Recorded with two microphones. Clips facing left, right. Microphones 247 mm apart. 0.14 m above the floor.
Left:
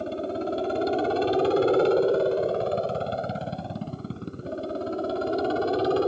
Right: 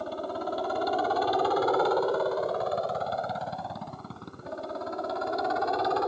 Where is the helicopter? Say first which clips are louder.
Left 5 dB; 25° left (ahead or behind); by 6.1 s 35° left (ahead or behind).